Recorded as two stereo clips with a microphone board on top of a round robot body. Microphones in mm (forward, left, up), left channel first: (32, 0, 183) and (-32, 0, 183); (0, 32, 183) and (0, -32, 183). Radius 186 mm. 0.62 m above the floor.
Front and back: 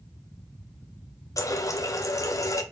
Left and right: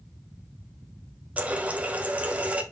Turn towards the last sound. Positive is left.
turn(degrees=-25)